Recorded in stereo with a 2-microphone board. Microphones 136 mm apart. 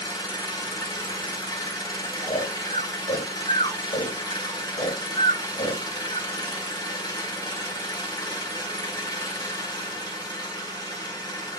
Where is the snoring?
65° left (ahead or behind), 2.5 m.